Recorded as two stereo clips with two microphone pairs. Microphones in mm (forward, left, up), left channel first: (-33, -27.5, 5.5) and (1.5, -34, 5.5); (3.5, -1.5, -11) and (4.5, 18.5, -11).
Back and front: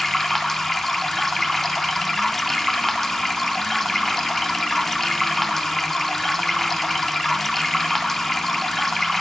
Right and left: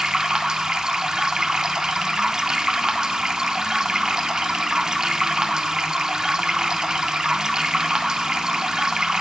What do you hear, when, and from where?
0.0 s running water: 90° left, 0.7 m